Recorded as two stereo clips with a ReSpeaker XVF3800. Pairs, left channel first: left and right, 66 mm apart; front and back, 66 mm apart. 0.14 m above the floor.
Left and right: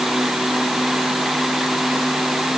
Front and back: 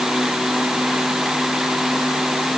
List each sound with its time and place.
Only background noise.